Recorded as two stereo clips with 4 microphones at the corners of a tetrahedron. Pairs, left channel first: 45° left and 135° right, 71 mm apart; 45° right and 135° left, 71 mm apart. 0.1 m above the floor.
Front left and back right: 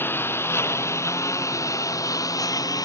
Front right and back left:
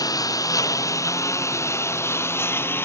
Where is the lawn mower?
15° right; by 2.9 s 10° left.